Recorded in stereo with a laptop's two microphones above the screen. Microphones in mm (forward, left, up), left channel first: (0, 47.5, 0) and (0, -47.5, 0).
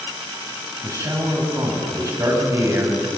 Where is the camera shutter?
No camera shutter in this recording.